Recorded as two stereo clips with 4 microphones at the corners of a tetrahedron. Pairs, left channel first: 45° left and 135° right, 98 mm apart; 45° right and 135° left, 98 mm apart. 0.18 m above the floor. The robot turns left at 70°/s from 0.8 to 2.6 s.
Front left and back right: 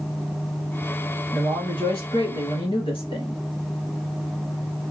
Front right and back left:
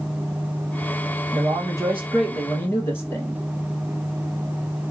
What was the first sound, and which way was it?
A man speaking, 110° left.